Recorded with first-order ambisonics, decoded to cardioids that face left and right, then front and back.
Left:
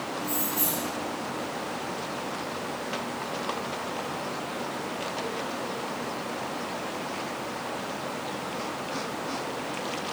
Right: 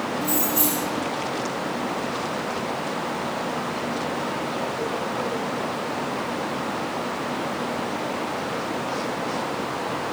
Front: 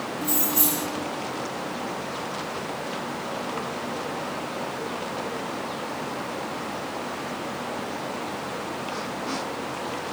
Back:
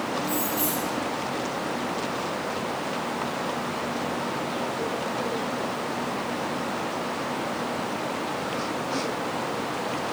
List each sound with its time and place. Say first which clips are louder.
0.2 s keys jangling: right 7 dB, even; 35° right, 1.8 m